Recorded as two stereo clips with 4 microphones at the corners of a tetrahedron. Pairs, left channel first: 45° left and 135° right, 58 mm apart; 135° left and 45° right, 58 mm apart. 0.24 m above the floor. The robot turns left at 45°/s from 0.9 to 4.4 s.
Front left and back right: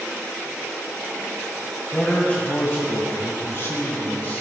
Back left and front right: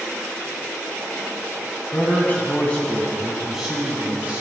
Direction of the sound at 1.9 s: 110° left.